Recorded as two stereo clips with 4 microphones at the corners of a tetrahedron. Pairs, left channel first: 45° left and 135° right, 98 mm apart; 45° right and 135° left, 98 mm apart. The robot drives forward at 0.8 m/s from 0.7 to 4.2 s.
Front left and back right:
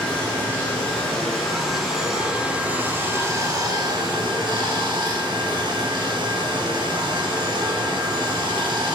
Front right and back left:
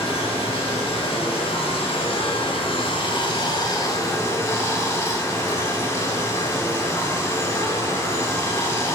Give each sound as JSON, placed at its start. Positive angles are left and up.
{"t": 0.0, "sound": "running water", "azimuth_deg": -30, "distance_m": 3.0}